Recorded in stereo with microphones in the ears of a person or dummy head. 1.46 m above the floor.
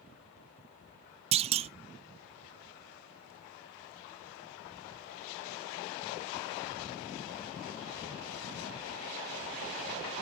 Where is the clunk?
35° right (ahead or behind), 0.5 m.